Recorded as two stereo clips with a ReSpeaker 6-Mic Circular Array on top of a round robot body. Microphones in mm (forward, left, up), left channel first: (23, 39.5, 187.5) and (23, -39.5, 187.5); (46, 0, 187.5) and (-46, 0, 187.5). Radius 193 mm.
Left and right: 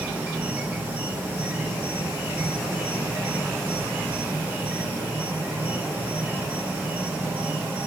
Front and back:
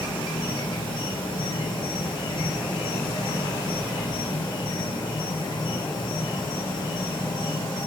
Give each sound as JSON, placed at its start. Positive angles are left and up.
{"t": 0.0, "sound": "an insect", "azimuth_deg": -25, "distance_m": 1.5}